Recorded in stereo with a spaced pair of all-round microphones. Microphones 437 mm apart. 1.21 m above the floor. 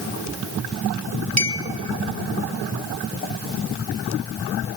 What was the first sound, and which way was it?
A clink, 35° right (ahead or behind).